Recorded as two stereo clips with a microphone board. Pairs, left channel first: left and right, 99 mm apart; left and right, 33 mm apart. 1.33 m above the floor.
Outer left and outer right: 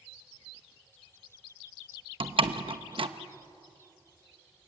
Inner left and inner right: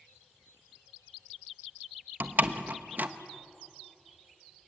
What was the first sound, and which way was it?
A door slam, 60° right (ahead or behind).